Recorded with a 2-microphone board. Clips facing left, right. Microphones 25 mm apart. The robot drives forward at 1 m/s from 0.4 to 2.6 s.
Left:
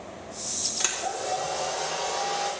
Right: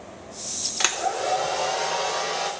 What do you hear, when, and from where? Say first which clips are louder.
0.8 s a hair dryer: right 8 dB; 35° right (ahead or behind), 1.1 m; by 2.5 s 20° right (ahead or behind), 1.9 m